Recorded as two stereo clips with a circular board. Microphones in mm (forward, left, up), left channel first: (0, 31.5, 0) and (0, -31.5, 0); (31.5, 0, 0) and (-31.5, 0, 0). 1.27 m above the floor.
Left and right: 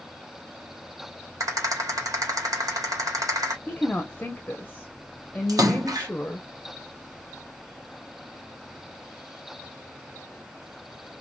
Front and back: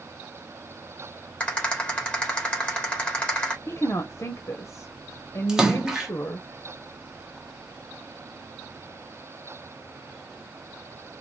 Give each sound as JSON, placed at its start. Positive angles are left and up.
{"t": 1.4, "sound": "a rattle", "azimuth_deg": -70, "distance_m": 1.9}
{"t": 3.7, "sound": "a woman speaking", "azimuth_deg": 25, "distance_m": 0.8}
{"t": 5.5, "sound": "a splash", "azimuth_deg": -100, "distance_m": 1.1}